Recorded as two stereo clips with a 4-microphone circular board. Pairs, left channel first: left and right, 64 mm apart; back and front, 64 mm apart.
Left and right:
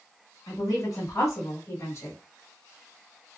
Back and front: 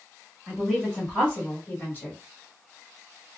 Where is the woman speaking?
100° left, 1.6 m; by 2.2 s 135° left, 1.8 m.